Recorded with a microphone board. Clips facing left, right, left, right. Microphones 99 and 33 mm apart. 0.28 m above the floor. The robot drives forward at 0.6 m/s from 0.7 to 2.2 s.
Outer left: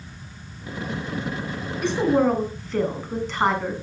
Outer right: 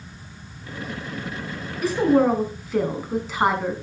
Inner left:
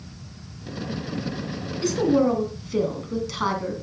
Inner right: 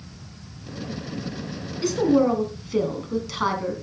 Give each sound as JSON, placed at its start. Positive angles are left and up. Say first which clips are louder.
{"t": 1.8, "sound": "a woman speaking", "louder": "outer right 2 dB, inner right 1 dB", "side_deg": -5, "distance_m": 2.5}